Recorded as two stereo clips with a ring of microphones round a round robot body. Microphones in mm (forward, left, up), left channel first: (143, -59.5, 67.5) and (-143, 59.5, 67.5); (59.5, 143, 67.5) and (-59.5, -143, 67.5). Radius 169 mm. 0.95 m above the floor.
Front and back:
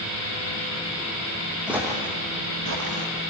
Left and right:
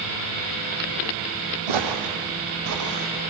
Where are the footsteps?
115° right, 2.5 m; by 3.1 s 165° right, 3 m.